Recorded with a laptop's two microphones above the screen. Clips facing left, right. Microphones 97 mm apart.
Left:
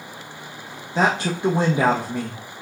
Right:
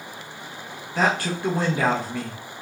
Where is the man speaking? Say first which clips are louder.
Left 2 dB; 20° left (ahead or behind), 0.5 m.